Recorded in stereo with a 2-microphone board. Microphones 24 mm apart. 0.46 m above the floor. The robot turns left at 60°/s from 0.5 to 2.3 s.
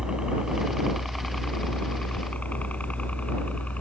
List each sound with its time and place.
0.0 s a helicopter: 25° right (ahead or behind); by 3.8 s 65° left (ahead or behind)